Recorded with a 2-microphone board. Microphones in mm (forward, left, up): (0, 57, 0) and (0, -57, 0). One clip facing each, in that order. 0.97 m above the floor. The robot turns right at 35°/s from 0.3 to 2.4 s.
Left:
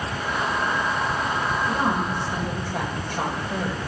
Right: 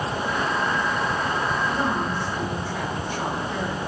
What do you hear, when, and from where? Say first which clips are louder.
1.7 s a woman speaking: left 1 dB; 55° left (ahead or behind), 5 m; by 3.8 s 75° left (ahead or behind), 5 m